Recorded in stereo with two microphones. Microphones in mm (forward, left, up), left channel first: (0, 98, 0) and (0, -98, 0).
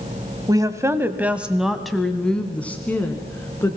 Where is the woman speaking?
20° right (ahead or behind), 1.0 m; by 3.8 s 10° left (ahead or behind), 2 m.